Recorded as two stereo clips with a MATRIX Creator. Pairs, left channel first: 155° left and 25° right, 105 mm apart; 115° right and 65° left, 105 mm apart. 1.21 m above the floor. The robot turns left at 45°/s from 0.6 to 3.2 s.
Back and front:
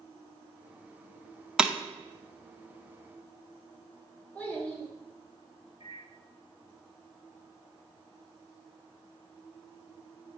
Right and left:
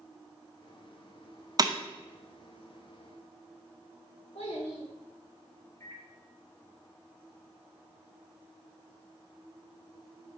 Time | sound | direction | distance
1.6 | breaking glass | 55° left | 0.5 m
4.3 | a child speaking | 125° right | 2.0 m
5.8 | a microwave | straight behind | 1.4 m